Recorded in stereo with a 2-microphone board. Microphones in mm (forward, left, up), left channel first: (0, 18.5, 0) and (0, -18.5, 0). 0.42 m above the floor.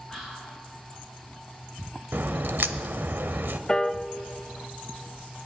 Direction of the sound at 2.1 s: 65° right (ahead or behind).